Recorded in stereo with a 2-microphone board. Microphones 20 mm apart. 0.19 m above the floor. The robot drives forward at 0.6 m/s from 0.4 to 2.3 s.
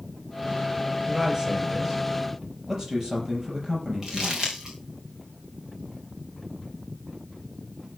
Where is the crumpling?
20° right (ahead or behind), 4.5 m.